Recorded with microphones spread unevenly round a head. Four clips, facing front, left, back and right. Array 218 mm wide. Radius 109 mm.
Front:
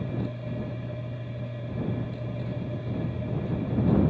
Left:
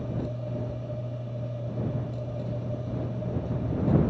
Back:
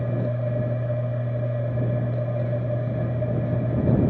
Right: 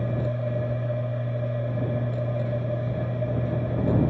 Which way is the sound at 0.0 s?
155° right.